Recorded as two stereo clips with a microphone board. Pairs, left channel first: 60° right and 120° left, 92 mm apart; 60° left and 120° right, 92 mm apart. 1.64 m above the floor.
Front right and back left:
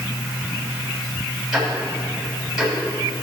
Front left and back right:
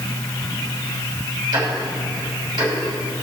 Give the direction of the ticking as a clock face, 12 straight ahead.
5 o'clock.